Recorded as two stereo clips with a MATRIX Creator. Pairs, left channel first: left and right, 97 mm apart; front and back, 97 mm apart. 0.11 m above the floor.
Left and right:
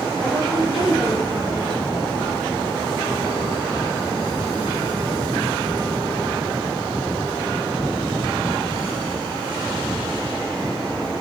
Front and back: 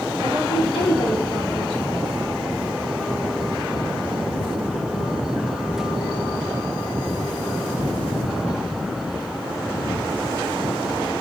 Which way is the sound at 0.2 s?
10° right.